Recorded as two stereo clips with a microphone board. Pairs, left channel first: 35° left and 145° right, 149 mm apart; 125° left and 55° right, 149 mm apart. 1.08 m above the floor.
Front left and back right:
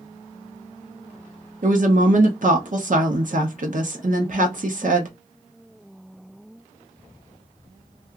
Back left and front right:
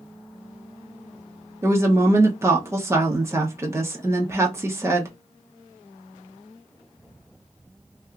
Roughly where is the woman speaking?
Behind right.